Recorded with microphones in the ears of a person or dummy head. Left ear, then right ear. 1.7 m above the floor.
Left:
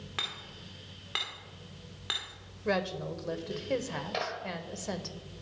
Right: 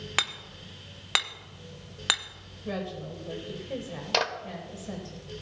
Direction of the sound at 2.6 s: 55° left (ahead or behind).